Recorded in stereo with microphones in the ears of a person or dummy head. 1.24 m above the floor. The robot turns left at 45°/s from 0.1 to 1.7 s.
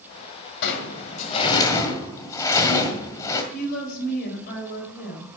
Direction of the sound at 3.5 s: 50° left (ahead or behind).